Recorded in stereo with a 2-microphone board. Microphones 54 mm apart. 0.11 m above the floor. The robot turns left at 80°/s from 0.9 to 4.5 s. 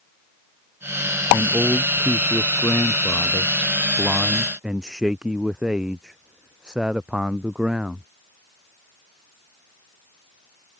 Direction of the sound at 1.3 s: 120° right.